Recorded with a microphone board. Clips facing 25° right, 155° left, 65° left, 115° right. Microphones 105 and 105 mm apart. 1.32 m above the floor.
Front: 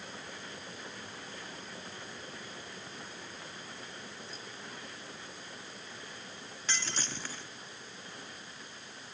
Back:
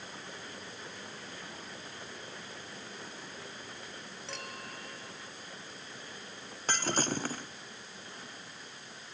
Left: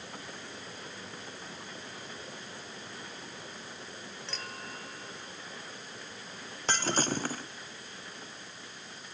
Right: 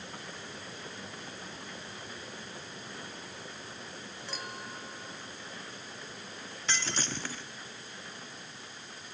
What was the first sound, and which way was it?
A clink, 170° left.